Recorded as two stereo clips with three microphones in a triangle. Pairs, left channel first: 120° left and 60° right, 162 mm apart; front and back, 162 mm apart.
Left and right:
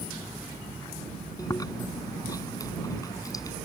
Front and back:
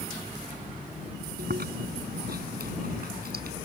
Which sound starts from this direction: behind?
Chewing, at 1.4 s.